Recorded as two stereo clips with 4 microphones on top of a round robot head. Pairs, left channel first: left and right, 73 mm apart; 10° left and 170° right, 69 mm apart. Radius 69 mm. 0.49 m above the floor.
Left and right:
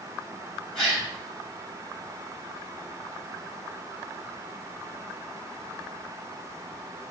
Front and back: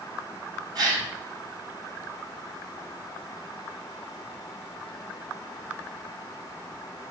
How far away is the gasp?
About 4 m.